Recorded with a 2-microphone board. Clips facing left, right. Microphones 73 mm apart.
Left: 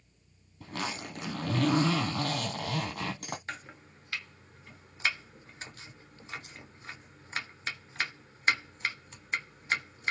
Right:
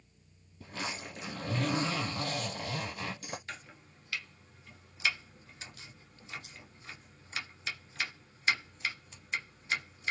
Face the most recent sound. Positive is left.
turn(degrees=40)  # may be behind; listen again after turning